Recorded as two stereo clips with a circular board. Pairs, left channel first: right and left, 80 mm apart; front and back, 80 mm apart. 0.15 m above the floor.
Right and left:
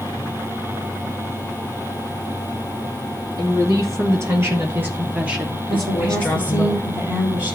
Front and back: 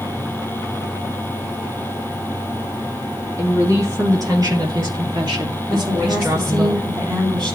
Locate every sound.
3.4 s a woman speaking: 135° left, 4 m; by 6.7 s 145° right, 2.5 m
5.7 s a woman speaking: 155° left, 6.5 m